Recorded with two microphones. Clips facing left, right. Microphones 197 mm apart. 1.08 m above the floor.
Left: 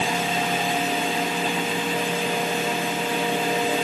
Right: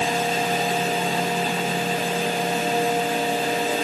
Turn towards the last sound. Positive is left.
No sound to turn to.